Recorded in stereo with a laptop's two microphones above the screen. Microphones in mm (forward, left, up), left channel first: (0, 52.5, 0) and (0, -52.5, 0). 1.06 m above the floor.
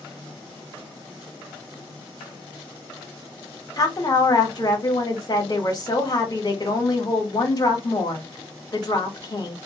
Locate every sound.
3.8 s a woman speaking: 40° left (ahead or behind), 1.3 m